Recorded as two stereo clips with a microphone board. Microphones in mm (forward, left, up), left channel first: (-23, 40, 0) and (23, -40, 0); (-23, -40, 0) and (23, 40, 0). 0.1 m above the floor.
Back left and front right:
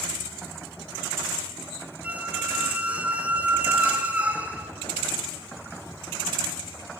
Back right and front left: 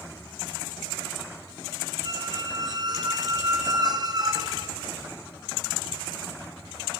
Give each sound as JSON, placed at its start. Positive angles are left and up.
{"t": 2.0, "sound": "a squeak", "azimuth_deg": 15, "distance_m": 0.9}